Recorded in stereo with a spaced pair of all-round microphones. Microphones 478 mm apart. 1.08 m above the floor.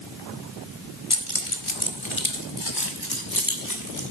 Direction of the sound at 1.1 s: 85° left.